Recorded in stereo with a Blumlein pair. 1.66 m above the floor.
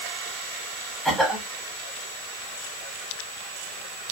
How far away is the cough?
About 1.4 m.